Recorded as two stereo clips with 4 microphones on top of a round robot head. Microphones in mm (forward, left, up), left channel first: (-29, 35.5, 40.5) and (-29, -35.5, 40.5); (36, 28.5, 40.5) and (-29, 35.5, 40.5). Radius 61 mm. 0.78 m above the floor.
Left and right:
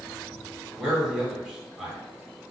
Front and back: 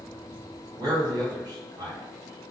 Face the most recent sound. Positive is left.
turn(degrees=-170)